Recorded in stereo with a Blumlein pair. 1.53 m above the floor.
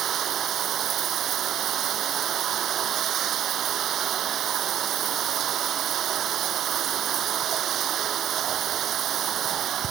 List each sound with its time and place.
0.0 s running water: 30° right